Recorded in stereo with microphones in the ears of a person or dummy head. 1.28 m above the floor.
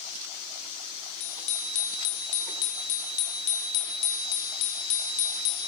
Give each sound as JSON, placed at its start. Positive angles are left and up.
{"t": 1.2, "sound": "a bicycle bell", "side_deg": 60, "distance_m": 4.5}